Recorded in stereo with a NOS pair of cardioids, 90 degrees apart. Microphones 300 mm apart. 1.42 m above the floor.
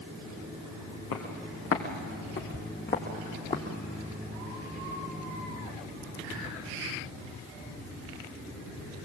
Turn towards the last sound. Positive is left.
turn(degrees=25)